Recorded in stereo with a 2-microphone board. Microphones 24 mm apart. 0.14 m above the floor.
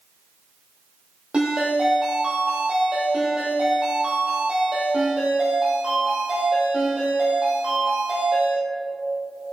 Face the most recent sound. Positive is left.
turn(degrees=-45)  # may be behind; listen again after turning